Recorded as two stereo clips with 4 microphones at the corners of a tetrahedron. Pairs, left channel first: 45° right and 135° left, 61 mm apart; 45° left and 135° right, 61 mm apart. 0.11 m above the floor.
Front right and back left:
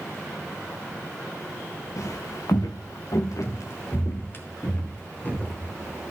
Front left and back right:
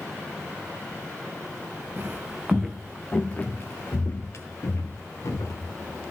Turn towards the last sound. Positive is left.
turn(degrees=20)